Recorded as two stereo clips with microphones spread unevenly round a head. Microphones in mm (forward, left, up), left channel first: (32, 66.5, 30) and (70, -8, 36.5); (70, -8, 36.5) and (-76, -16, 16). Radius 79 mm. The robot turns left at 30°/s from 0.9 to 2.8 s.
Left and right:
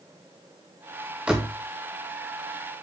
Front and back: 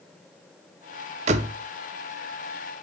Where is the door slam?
140° right, 0.8 m; by 1.6 s 145° right, 0.8 m.